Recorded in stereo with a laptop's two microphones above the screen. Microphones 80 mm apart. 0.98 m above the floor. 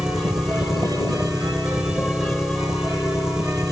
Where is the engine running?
5° right (ahead or behind).